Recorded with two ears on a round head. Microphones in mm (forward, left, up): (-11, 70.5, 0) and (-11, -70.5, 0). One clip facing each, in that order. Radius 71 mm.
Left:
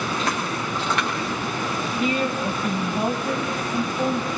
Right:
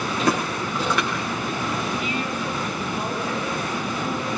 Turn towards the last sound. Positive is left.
turn(degrees=35)  # may be behind; listen again after turning